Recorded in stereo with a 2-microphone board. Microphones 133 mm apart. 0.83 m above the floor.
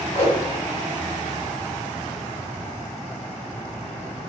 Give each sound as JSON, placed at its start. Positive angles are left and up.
{"t": 0.1, "sound": "a whoosh", "side_deg": 55, "distance_m": 1.6}